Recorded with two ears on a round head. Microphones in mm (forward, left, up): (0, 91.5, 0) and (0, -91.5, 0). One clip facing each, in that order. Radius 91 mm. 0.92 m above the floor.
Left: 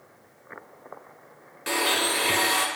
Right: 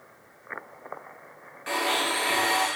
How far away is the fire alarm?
I don't hear a fire alarm.